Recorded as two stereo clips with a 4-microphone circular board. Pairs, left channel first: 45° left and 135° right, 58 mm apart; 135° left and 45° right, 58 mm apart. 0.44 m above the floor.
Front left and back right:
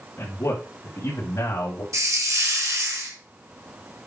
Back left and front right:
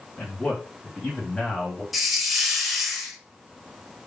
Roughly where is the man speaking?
Left.